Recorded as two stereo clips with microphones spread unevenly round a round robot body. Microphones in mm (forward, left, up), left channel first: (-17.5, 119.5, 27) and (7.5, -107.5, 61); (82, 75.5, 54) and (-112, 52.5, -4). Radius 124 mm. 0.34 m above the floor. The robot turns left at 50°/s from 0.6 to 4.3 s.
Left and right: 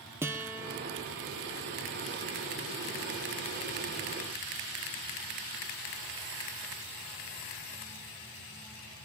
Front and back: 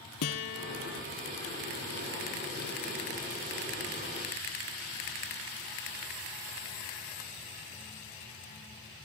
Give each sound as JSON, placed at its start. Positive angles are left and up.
{"t": 0.2, "sound": "a guitar", "azimuth_deg": -5, "distance_m": 2.0}